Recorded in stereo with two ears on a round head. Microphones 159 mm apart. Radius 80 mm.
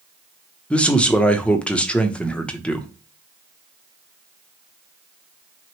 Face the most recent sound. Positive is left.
turn(degrees=5)  # may be behind; listen again after turning